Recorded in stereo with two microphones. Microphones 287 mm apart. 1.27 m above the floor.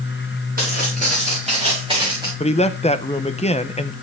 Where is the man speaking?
20° left (ahead or behind), 0.8 m.